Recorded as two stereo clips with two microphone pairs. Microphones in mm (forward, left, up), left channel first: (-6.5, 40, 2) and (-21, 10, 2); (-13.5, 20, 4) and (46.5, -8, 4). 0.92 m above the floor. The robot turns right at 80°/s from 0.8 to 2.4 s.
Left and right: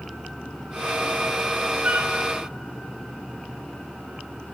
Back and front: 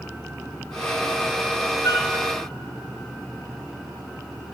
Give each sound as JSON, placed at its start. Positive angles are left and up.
{"t": 1.8, "sound": "a flute", "azimuth_deg": -170, "distance_m": 1.9}